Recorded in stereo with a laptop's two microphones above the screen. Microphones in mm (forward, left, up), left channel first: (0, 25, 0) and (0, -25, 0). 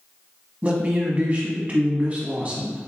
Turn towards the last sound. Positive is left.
turn(degrees=-25)  # may be behind; listen again after turning